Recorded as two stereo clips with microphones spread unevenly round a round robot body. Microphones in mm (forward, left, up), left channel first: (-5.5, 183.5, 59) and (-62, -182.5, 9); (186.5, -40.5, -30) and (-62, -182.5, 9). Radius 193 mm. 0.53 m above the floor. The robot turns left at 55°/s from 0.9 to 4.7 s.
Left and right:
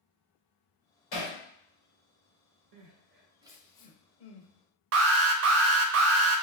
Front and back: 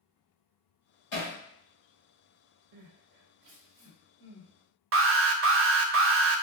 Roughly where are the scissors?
No scissors in this recording.